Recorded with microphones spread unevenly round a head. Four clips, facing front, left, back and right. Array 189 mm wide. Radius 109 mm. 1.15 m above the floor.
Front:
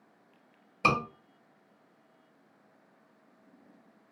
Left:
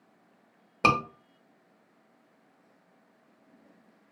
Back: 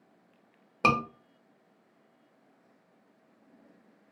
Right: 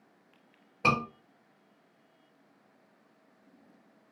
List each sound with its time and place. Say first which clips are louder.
0.8 s a scream: left 3 dB, back 2 dB; 100° left, 1.1 m